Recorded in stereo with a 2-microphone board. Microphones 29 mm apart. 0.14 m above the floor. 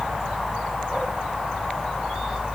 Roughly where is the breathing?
No breathing in this recording.